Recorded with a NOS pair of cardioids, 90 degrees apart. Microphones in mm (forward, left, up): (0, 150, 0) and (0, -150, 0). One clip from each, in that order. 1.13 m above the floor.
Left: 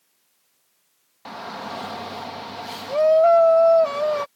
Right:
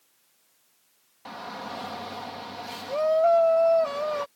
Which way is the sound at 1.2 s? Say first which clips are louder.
Left 4 dB; 30° left.